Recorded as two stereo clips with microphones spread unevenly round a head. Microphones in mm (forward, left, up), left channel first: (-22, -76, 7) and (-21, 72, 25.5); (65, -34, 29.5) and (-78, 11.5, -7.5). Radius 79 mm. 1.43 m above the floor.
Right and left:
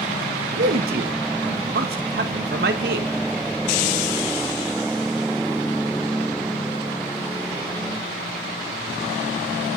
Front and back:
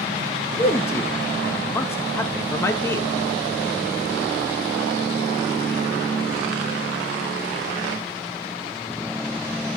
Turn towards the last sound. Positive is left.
turn(degrees=55)